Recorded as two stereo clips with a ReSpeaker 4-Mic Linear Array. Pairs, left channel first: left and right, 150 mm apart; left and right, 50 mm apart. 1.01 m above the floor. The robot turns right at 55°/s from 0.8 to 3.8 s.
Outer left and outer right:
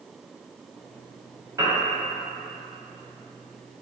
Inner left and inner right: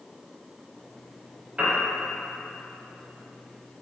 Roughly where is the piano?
Right.